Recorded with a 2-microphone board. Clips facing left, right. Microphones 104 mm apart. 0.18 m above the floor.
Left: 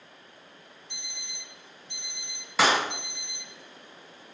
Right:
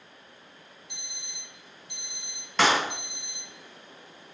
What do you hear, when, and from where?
0.9 s an alarm clock: 10° right (ahead or behind), 2 m
2.6 s a clap: 5° left (ahead or behind), 1.1 m